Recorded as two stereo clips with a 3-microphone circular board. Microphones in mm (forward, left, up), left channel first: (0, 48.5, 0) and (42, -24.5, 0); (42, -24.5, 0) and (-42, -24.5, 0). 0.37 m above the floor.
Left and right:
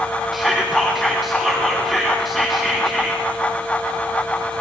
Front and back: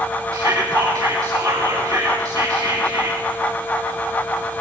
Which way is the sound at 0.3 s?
150° right.